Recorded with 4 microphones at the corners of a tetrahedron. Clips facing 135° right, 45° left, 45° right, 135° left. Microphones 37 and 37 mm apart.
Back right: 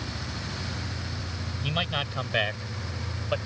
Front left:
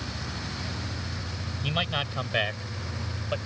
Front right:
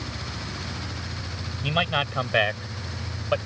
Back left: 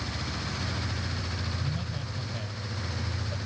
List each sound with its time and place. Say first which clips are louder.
1.6 s a man speaking: even, front right 12 dB; 45° right; by 3.4 s 60° right